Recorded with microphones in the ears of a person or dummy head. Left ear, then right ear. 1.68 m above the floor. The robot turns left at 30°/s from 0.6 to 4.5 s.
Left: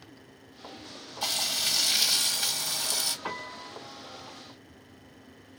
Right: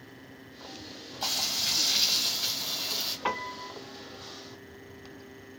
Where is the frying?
170° left, 1.5 m; by 3.1 s 115° left, 1.5 m.